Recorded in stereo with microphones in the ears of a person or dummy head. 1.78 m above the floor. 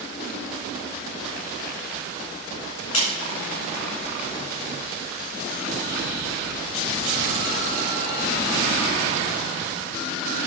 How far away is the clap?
About 4.5 m.